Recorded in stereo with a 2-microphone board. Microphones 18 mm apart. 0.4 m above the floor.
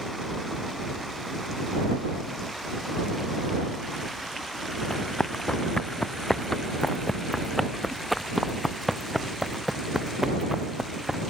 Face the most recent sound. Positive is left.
turn(degrees=-35)  # may be behind; listen again after turning